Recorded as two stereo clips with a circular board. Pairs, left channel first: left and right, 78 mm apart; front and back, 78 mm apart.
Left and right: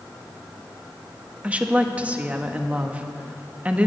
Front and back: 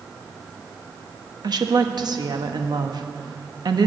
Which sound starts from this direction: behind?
A woman speaking, at 1.4 s.